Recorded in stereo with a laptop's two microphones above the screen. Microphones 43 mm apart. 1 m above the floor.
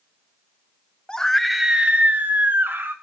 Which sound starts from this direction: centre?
A scream, at 1.1 s.